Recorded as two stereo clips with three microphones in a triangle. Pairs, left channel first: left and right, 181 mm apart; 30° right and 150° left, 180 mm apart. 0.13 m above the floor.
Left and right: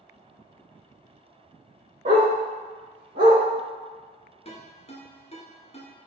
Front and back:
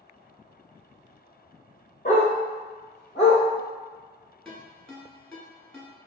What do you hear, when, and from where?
2.0 s a dog barking: 70° right, 1.8 m; by 3.4 s 90° right, 2.5 m
4.5 s a ringtone: 50° left, 0.9 m